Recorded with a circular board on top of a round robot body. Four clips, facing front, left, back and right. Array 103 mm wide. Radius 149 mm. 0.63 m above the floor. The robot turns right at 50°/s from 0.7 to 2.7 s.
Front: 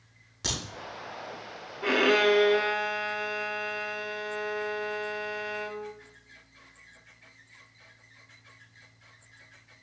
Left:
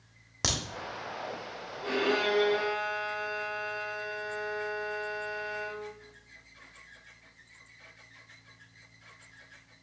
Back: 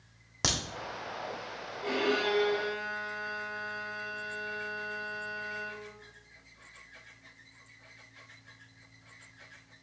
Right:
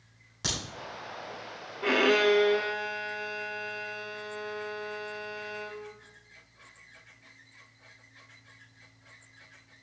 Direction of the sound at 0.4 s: 140° left.